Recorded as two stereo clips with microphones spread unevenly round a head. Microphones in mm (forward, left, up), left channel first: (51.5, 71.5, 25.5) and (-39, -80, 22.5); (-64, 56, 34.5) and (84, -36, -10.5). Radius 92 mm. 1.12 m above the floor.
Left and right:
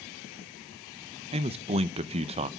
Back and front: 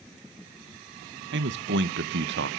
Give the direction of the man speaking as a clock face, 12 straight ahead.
2 o'clock.